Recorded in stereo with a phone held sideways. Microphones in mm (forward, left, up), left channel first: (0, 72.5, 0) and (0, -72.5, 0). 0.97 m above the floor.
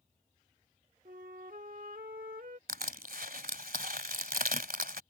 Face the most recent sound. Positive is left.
turn(degrees=-75)  # may be behind; listen again after turning